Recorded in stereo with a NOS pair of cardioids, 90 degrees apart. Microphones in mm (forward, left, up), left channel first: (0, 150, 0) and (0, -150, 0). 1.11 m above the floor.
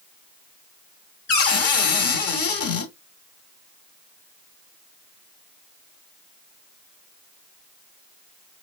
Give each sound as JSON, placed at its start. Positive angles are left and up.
{"t": 1.3, "sound": "a cupboard door", "azimuth_deg": 55, "distance_m": 1.8}